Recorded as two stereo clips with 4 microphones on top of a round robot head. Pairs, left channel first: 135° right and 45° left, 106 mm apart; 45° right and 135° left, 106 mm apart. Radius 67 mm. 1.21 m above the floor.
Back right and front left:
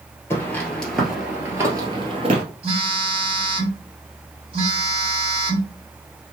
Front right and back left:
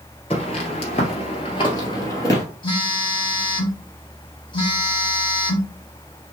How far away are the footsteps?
About 1.7 m.